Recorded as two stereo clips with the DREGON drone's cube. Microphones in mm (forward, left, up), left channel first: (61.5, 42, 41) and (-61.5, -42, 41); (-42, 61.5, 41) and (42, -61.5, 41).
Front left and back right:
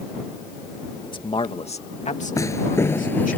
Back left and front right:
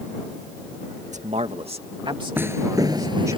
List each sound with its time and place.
1.1 s a man speaking: 25° right; by 3.4 s 10° left
2.4 s footsteps: straight ahead; by 3.4 s 35° right